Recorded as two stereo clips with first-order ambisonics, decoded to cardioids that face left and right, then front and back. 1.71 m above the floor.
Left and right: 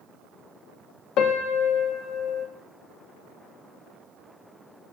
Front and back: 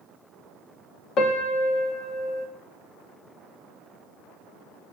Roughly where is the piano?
Ahead left.